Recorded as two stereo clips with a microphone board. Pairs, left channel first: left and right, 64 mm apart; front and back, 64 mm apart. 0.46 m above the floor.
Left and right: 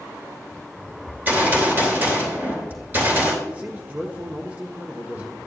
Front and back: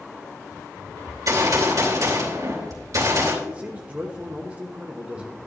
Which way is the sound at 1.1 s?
150° right.